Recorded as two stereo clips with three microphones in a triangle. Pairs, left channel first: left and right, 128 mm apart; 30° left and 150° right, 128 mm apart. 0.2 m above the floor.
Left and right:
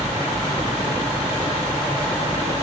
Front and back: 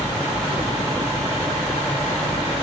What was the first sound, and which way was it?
Only background noise.